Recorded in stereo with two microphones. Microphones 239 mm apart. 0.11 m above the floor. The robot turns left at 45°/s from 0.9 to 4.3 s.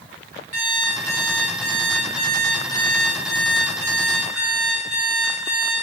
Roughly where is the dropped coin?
No dropped coin in this recording.